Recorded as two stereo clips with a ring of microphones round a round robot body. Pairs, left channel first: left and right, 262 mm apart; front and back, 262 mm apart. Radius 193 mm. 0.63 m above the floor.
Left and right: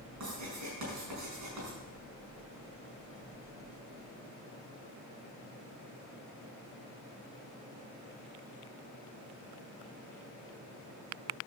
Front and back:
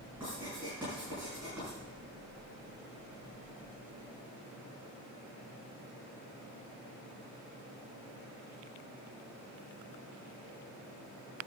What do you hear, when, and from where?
0.2 s writing: 95° right, 5 m